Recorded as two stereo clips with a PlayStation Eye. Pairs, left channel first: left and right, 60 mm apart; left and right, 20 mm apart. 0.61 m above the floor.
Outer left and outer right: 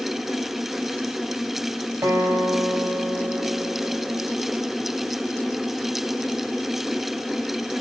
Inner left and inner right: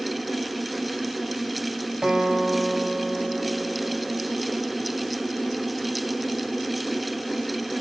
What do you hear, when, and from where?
2.0 s a guitar: 55° right (ahead or behind), 4.5 m